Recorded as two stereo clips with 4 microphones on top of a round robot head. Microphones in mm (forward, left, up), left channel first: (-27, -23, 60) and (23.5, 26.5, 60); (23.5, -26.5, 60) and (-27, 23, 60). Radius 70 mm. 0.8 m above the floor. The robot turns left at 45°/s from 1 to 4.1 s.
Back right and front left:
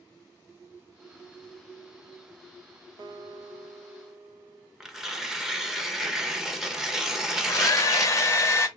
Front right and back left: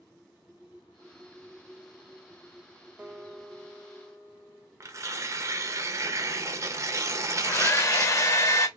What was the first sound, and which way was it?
A guitar, 65° left.